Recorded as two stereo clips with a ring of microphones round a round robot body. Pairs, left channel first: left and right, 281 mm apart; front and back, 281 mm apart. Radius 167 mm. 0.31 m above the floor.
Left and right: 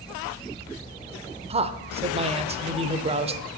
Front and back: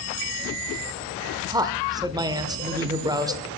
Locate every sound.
1.5 s a man speaking: 120° right, 0.9 m